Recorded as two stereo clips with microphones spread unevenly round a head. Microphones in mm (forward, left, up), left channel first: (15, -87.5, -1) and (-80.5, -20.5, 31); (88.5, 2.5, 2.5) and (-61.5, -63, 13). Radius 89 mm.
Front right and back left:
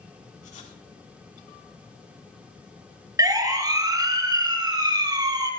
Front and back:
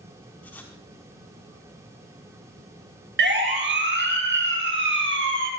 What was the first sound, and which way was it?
Writing, 55° right.